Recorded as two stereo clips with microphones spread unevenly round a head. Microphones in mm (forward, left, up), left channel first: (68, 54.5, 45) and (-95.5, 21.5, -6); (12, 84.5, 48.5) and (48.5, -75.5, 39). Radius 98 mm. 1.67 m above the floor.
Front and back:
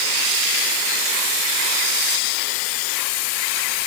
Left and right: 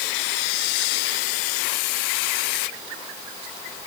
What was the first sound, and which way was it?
Only background noise.